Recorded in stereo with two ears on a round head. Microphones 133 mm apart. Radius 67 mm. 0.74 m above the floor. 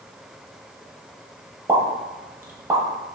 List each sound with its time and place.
1.7 s a pop: 15° right (ahead or behind), 0.6 m